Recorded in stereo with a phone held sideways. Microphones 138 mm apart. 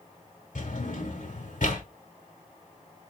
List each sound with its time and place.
0.6 s a drawer: 65° left (ahead or behind), 1.4 m